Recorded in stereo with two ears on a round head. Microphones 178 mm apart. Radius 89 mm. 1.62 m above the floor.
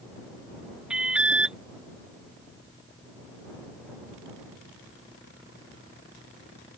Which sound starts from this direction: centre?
An alarm, at 0.9 s.